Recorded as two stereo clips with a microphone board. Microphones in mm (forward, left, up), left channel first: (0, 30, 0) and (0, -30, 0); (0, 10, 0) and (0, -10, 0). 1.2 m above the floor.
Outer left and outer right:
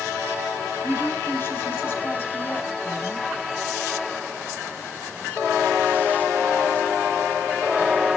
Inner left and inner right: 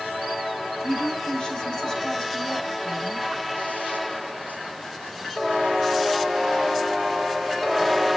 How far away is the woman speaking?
About 4.5 m.